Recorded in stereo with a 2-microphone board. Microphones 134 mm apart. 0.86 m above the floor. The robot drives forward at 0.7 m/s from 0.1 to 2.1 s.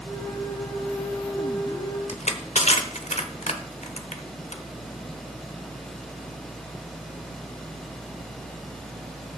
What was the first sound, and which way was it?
Crushing, 60° left (ahead or behind).